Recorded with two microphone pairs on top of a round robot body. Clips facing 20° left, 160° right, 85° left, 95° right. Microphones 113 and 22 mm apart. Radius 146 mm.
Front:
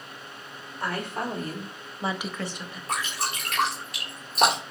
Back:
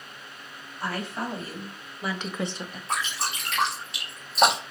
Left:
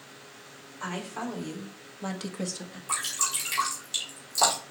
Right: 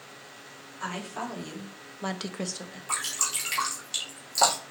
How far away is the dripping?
About 2 m.